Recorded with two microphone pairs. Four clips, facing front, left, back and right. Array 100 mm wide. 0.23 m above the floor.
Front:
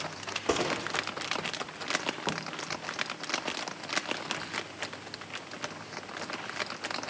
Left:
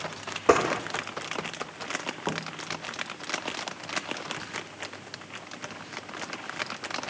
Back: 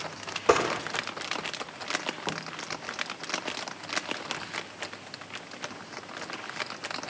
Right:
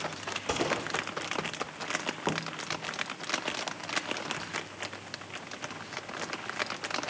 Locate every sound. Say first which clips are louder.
0.5 s a gunshot: left 9 dB, back 6 dB; 110° left, 5.5 m